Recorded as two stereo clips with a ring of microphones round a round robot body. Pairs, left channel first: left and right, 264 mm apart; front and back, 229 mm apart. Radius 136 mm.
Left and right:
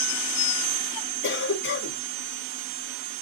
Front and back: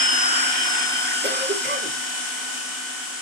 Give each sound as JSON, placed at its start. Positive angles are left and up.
{"t": 1.2, "sound": "a cough", "azimuth_deg": 135, "distance_m": 5.0}